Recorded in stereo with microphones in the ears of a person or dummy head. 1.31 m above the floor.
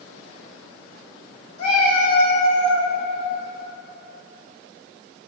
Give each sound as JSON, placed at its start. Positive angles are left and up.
{"t": 1.6, "sound": "a cat meowing", "side_deg": 40, "distance_m": 1.1}